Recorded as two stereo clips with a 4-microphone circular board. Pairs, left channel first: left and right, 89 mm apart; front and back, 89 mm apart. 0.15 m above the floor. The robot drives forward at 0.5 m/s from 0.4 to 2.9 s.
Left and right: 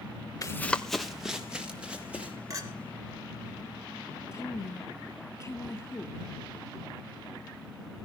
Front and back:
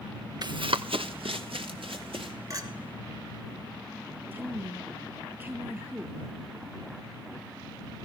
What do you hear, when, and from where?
0.4 s running footsteps: 140° left, 0.6 m; by 2.3 s 165° right, 3.5 m
2.5 s a clink: 135° right, 2 m
4.3 s a woman speaking: 130° left, 1.8 m